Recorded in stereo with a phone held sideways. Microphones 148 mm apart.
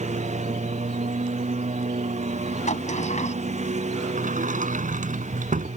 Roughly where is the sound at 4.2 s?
Right.